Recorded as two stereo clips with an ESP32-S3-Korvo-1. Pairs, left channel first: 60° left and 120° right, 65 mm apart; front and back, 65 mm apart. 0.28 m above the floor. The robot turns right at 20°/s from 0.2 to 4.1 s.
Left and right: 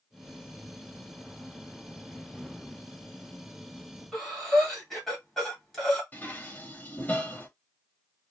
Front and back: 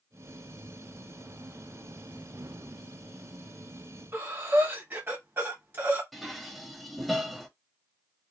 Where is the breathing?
145° left, 1.7 m.